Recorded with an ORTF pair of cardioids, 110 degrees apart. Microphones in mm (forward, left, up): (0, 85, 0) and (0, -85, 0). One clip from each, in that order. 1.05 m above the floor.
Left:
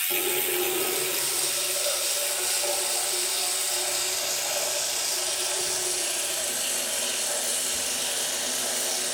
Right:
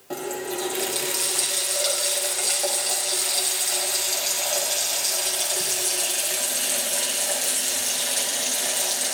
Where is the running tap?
35° right, 4.5 m.